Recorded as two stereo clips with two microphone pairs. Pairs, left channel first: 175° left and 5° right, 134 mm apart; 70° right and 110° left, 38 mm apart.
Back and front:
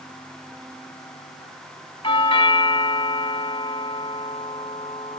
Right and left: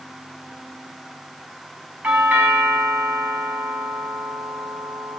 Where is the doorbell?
135° left, 2 m.